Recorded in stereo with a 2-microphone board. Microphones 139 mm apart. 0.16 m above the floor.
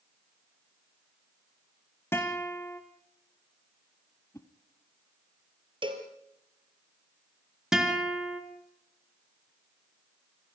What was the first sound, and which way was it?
A guitar, 15° left (ahead or behind).